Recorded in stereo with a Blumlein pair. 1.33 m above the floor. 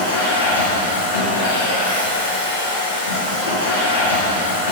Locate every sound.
0.0 s a machine running: 70° left, 0.8 m